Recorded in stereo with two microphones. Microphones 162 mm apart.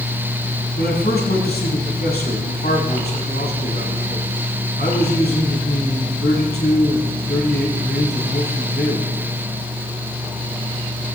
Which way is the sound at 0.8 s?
80° left.